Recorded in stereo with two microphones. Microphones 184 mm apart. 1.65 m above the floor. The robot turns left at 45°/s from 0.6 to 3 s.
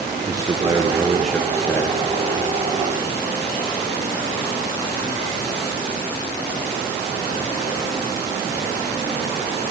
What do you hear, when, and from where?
0.2 s a man speaking: 155° right, 0.7 m; by 2.0 s 145° left, 0.7 m